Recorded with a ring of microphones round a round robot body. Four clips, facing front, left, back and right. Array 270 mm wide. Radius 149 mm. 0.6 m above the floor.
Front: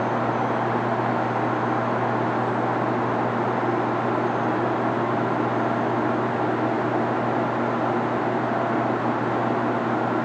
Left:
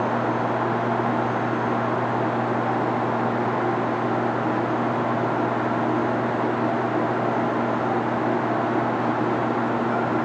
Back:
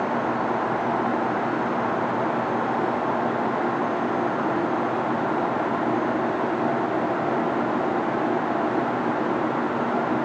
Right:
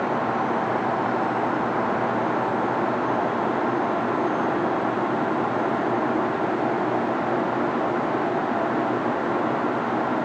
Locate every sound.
Only background noise.